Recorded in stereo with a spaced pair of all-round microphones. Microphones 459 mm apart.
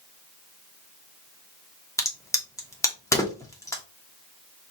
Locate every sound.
2.0 s a crack: 5° left (ahead or behind), 1.0 m